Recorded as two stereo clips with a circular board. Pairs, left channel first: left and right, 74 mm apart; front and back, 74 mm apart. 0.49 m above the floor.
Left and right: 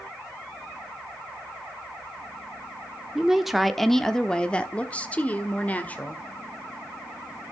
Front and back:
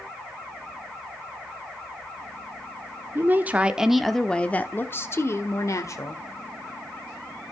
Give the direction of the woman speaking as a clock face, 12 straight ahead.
6 o'clock.